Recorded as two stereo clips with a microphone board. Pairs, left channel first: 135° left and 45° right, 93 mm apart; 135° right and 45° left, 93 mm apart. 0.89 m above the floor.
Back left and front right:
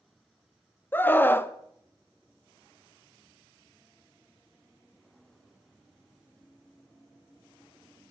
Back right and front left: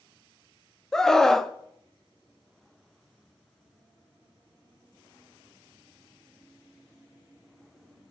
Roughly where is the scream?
Behind left.